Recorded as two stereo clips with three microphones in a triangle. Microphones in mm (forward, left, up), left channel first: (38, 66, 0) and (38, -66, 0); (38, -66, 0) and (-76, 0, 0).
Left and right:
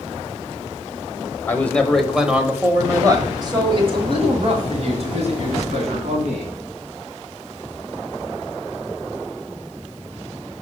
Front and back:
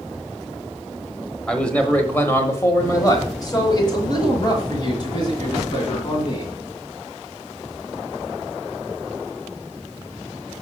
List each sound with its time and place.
1.5 s a man speaking: 45° left, 1.1 m; by 6.5 s 80° right, 2.5 m